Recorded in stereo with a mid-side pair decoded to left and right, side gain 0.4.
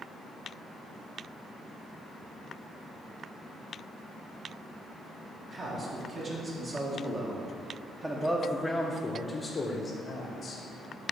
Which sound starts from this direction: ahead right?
A man speaking, at 5.5 s.